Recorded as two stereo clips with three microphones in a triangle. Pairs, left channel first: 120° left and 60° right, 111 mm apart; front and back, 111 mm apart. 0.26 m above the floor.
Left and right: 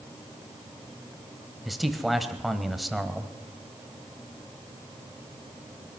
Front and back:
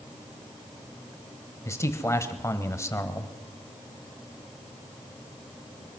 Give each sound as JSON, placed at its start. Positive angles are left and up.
{"t": 1.6, "sound": "a man speaking", "azimuth_deg": 30, "distance_m": 1.0}